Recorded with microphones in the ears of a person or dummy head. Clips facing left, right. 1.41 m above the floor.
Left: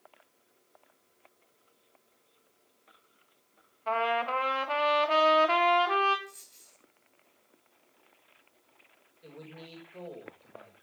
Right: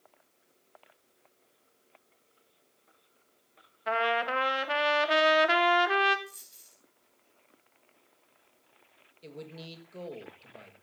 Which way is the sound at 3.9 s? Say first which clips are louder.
Even; 20° right (ahead or behind).